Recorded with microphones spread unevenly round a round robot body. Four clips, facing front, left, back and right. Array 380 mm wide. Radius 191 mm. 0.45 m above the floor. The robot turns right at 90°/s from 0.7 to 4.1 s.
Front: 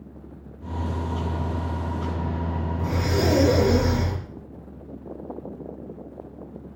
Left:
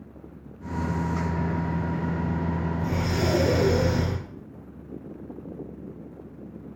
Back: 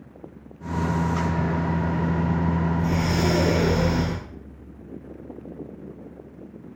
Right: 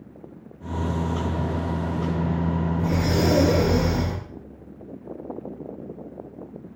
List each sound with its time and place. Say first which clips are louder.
2.8 s breathing: right 6 dB, back 1 dB; 90° right, 5 m; by 4.2 s 25° left, 5 m